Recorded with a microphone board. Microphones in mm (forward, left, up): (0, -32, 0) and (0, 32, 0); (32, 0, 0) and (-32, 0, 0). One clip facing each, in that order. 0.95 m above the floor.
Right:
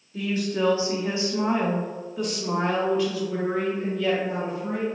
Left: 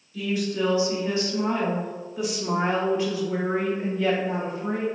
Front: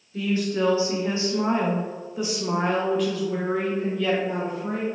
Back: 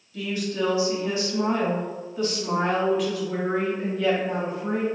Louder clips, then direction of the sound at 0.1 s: Even, front 3 dB; 50° right.